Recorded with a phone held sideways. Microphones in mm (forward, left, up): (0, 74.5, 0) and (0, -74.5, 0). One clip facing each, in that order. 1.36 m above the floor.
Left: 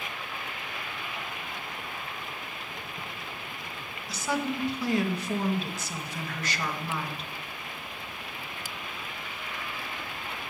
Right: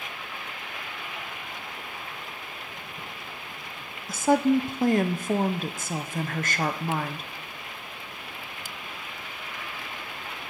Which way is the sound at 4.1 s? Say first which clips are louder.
Right 10 dB; 45° right (ahead or behind).